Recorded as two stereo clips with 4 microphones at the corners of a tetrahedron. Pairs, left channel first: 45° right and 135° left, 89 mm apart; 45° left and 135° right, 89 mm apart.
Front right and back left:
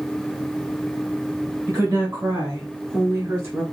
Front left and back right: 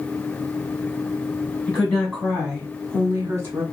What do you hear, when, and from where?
1.7 s a woman speaking: 115° left, 1.4 m; by 3.6 s straight behind, 1.7 m